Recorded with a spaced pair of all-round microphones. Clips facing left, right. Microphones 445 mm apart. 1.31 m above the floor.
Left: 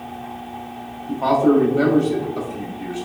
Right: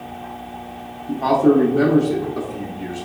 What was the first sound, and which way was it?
A man speaking, 35° right (ahead or behind).